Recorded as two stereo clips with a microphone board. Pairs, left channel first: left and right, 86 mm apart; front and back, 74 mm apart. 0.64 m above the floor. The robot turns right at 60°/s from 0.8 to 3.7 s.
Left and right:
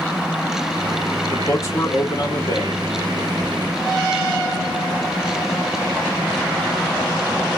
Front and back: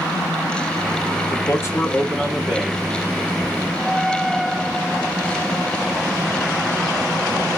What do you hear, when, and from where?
1.3 s a man speaking: 25° left, 1.7 m; by 2.8 s 120° left, 1.7 m